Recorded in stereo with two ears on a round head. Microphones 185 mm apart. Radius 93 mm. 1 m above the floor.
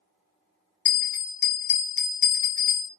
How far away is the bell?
About 1.1 m.